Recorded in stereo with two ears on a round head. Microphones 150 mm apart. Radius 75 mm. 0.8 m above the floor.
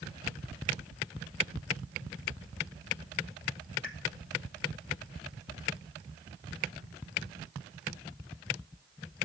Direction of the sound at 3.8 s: 55° left (ahead or behind).